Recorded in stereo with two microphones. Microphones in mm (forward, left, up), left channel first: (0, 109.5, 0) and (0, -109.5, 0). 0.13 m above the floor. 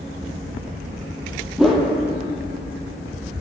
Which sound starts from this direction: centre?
A whoosh, at 1.6 s.